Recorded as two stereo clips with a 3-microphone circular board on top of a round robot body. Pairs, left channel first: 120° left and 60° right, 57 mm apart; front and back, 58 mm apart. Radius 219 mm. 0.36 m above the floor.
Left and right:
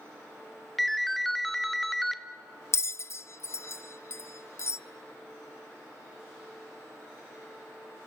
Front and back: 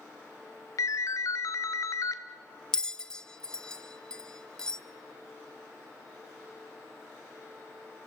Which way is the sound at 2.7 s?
80° left.